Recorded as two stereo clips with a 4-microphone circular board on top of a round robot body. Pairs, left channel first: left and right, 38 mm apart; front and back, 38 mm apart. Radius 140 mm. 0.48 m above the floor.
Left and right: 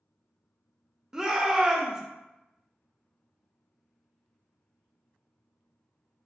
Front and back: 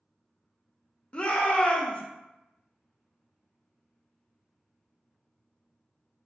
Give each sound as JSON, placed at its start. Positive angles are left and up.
{"t": 1.1, "sound": "a shout", "azimuth_deg": -30, "distance_m": 0.8}